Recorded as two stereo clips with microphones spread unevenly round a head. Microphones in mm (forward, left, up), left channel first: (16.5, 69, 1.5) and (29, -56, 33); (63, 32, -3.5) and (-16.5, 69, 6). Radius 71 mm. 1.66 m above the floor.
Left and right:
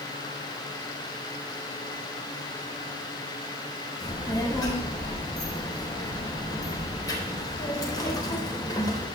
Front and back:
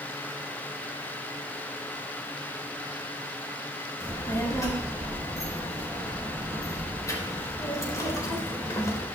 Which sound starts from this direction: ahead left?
A child speaking, at 4.0 s.